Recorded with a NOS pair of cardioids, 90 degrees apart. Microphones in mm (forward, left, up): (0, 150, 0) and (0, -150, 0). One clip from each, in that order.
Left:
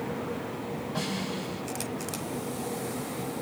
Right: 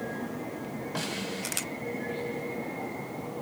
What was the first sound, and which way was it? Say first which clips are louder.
A snare drum: right 1 dB; 45° right.